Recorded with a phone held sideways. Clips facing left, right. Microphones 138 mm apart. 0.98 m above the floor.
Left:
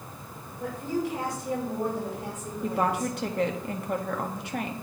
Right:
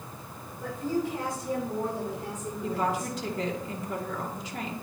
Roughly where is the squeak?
No squeak in this recording.